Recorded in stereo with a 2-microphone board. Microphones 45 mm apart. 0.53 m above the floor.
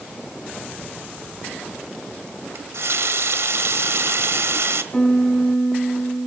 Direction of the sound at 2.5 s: 75° right (ahead or behind).